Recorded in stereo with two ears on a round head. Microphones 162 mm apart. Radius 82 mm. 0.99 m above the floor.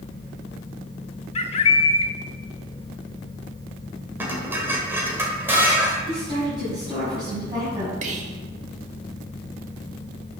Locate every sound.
1.4 s a bird: 30° left (ahead or behind), 0.7 m
4.2 s dishes clattering: 10° right (ahead or behind), 2.5 m
6.1 s a woman speaking: 20° right (ahead or behind), 6.5 m
8.0 s whispering: 35° right (ahead or behind), 1.5 m